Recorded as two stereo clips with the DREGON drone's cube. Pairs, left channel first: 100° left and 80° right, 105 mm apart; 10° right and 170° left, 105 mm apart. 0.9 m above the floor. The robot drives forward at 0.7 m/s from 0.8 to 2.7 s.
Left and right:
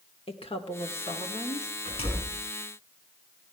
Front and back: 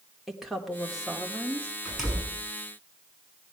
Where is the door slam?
80° left, 6 m; by 2.4 s 85° left, 6 m.